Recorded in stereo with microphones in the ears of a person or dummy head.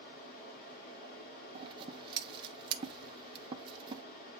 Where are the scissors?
30° right (ahead or behind), 0.9 m.